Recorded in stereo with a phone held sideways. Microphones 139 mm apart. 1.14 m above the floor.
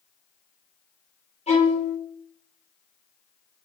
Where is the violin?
50° left (ahead or behind), 1.2 m.